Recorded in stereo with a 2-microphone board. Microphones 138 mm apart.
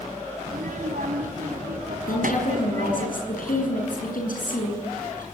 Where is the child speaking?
85° right, 3 m.